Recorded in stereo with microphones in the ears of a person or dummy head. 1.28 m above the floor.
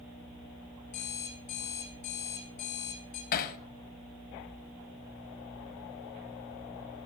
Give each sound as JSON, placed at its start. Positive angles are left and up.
{"t": 0.9, "sound": "an alarm clock", "side_deg": 50, "distance_m": 3.5}
{"t": 3.3, "sound": "hammering", "side_deg": 50, "distance_m": 0.9}